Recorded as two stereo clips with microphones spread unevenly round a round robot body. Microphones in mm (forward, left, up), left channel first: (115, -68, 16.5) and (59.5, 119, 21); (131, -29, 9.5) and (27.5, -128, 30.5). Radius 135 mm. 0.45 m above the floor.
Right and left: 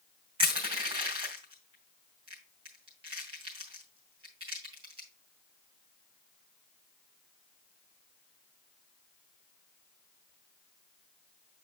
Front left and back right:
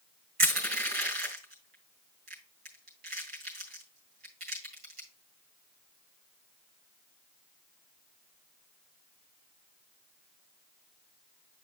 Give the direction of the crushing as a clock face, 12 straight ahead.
6 o'clock.